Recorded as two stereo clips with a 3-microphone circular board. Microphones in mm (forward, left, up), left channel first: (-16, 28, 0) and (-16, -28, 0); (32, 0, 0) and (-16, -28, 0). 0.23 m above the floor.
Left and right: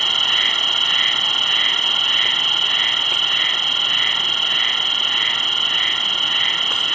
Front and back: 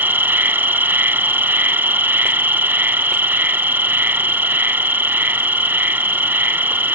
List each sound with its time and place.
0.0 s an insect: 170° left